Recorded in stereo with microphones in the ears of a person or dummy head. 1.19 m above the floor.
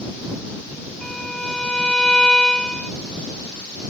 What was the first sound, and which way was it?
A violin, 5° left (ahead or behind).